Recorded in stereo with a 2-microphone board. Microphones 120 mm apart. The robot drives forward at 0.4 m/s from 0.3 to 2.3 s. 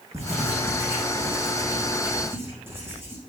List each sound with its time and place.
0.1 s writing: 20° right (ahead or behind), 4 m